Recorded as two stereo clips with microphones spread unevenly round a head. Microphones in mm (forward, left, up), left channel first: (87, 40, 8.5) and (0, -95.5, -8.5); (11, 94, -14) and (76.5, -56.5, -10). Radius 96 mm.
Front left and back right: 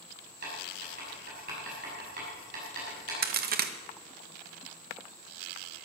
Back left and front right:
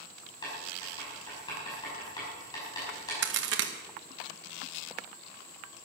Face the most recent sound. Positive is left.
turn(degrees=-95)